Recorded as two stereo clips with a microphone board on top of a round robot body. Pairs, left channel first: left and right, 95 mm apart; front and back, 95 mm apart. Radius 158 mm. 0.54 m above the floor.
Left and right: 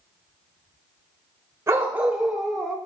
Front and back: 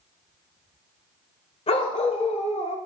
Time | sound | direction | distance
1.7 | a dog barking | 25° right | 0.9 m